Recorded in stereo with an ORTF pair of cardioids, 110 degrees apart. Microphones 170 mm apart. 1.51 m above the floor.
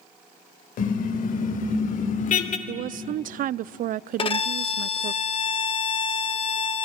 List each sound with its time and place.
0.8 s a car horn: 55° left, 3.5 m; by 2.6 s 50° left, 2.5 m
2.7 s a woman speaking: 55° right, 0.5 m
4.2 s a violin: 35° left, 1.4 m